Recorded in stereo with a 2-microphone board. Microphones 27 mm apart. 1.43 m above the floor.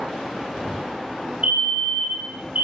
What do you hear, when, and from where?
1.4 s a fire alarm: 60° right (ahead or behind), 3.5 m